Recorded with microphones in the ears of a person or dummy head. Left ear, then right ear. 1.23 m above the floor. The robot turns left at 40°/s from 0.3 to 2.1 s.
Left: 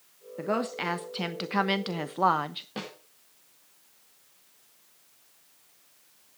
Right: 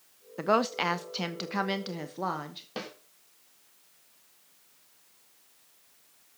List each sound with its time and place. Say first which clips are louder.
0.4 s a woman speaking: right 4 dB; 140° right, 0.8 m; by 2.7 s 155° left, 0.8 m
2.8 s a snare drum: right 1 dB; 20° right (ahead or behind), 3.5 m